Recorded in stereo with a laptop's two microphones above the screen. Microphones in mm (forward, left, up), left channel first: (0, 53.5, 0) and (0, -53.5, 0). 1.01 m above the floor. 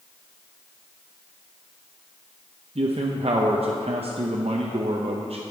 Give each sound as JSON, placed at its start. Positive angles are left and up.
{"t": 2.8, "sound": "a man speaking", "side_deg": -65, "distance_m": 0.6}